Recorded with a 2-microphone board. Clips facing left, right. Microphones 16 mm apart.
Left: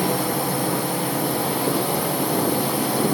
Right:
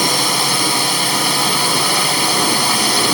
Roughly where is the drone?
Right.